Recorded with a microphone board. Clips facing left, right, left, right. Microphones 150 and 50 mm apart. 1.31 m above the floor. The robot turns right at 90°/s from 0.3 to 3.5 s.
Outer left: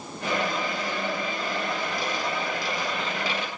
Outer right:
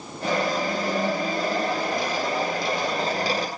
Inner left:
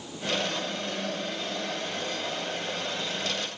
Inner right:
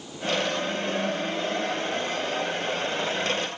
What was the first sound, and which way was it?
Only background noise.